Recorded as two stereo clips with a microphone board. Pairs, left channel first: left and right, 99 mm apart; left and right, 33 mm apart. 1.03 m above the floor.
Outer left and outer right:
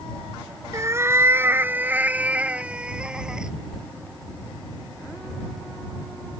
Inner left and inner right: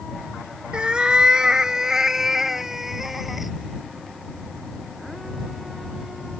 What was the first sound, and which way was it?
A cat meowing, 30° right (ahead or behind).